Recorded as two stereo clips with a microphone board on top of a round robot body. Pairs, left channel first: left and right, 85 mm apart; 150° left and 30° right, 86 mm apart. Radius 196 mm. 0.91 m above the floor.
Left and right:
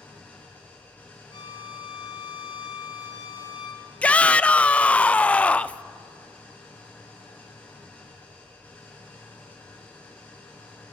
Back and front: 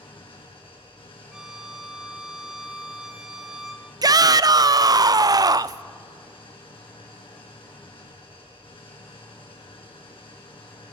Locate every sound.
0.0 s an engine running: 160° left, 4 m
1.3 s a violin: 55° left, 2.5 m
4.0 s a shout: 15° left, 0.6 m